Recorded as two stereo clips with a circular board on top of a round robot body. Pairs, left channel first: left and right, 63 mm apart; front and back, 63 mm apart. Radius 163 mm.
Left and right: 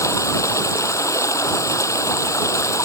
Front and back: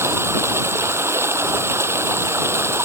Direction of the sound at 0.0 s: 130° left.